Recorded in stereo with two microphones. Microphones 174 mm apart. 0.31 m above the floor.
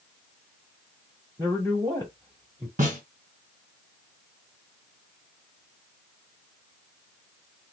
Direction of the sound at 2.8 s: 50° right (ahead or behind).